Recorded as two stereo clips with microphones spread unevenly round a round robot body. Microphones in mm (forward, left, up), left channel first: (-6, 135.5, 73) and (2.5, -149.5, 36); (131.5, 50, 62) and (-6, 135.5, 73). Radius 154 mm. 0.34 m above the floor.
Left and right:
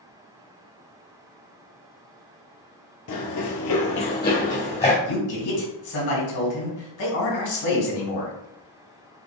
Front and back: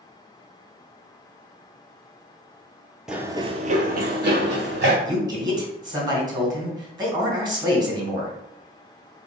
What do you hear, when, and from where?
3.1 s running footsteps: 65° left, 0.5 m; by 5.0 s 160° left, 1.2 m
5.0 s a man speaking: 85° left, 2 m